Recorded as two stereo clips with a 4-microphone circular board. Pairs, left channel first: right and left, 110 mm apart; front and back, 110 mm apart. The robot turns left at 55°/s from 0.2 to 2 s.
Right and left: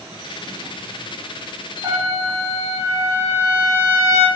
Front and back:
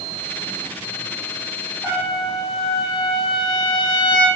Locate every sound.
1.8 s a trumpet: 45° left, 1.1 m; by 4.3 s 35° left, 1.1 m